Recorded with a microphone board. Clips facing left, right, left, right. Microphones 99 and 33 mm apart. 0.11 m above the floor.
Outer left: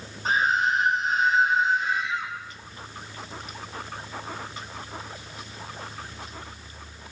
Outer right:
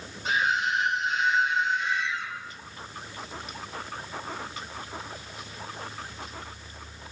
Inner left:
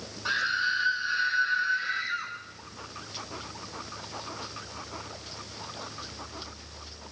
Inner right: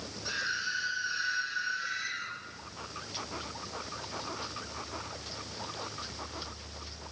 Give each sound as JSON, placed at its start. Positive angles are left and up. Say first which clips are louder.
{"t": 0.2, "sound": "a scream", "louder": "outer left 3 dB, inner left 7 dB", "side_deg": 40, "distance_m": 5.0}